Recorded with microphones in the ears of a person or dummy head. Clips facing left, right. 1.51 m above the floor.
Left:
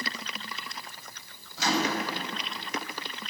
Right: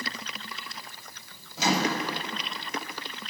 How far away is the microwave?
About 1.6 m.